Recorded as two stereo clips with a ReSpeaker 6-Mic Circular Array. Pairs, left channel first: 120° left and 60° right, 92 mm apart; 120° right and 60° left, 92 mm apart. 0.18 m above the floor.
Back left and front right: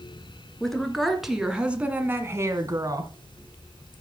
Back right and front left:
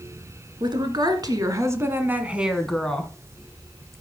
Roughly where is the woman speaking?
Ahead left.